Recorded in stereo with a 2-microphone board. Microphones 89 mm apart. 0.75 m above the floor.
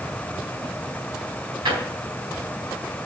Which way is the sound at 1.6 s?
80° right.